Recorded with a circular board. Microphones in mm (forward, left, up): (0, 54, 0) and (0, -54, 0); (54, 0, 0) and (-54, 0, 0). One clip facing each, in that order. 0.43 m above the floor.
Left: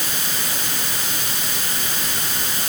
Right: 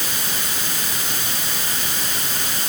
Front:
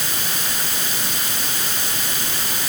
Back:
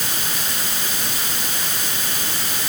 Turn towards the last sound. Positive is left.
No sound to turn to.